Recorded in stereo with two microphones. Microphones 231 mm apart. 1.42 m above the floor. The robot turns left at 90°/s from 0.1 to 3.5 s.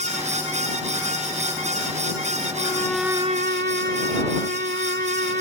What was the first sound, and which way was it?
A violin, 35° left.